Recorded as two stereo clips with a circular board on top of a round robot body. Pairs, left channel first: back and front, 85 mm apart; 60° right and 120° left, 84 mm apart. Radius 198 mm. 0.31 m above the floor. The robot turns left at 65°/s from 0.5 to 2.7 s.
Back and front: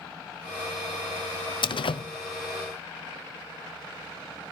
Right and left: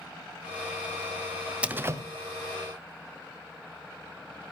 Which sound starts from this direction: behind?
A door slam, at 1.6 s.